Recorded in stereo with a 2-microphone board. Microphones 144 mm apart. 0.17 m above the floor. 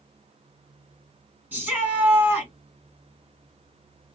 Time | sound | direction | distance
1.5 | a shout | 10° right (ahead or behind) | 1.6 m